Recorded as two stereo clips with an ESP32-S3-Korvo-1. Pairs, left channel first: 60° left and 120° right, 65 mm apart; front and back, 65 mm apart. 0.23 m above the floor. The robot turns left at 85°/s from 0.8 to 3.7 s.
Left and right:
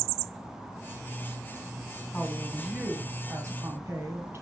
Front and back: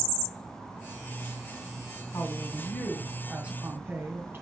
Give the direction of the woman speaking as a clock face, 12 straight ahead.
12 o'clock.